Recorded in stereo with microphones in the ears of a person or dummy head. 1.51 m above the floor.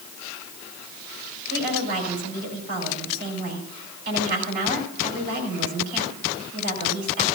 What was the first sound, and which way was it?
A woman speaking, 55° right (ahead or behind).